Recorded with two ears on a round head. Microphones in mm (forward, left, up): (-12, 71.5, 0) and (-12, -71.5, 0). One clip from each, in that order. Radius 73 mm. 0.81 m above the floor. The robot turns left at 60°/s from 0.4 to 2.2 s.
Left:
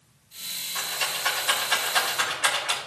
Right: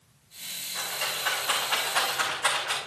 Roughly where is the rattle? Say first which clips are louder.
Left 2 dB; left.